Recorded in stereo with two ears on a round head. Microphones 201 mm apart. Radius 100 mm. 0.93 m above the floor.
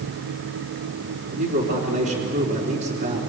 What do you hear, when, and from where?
1.3 s a man speaking: 50° right (ahead or behind), 3 m